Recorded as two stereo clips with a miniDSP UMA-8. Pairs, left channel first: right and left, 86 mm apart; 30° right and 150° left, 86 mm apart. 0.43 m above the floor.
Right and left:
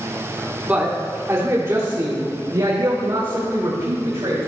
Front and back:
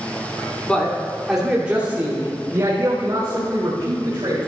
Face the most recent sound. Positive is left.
turn(degrees=115)